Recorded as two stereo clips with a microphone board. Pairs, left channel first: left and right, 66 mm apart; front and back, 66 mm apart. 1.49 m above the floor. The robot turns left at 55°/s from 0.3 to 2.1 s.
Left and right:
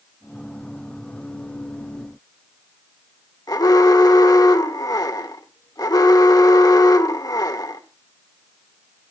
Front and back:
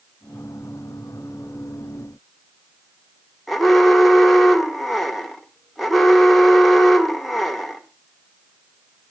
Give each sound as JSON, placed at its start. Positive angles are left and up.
{"t": 3.5, "sound": "an alarm", "azimuth_deg": 90, "distance_m": 1.7}